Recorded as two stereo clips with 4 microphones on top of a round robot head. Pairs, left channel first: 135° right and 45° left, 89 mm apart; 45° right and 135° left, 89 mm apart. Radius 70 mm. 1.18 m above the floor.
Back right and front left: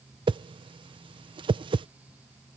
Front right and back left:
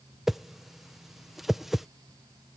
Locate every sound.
0.3 s a whoosh: 50° left